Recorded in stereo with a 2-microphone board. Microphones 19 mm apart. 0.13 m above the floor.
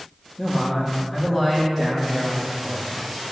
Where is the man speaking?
35° left (ahead or behind), 3 m; by 2.9 s 5° right (ahead or behind), 5 m.